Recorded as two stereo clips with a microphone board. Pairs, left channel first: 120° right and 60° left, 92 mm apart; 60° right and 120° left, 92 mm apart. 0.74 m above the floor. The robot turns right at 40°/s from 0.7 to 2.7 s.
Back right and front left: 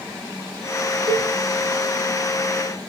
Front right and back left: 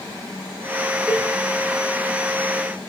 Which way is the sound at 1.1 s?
35° left.